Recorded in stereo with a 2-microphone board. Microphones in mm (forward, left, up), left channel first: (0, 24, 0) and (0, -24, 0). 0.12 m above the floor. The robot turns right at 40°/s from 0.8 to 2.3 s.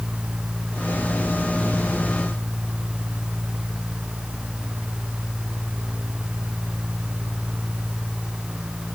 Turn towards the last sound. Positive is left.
No sound to turn to.